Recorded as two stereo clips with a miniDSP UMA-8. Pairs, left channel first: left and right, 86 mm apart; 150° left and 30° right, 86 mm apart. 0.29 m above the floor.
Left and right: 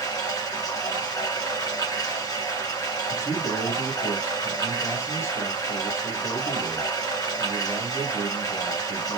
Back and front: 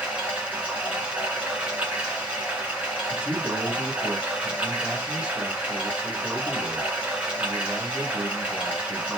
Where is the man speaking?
45° left, 2 m.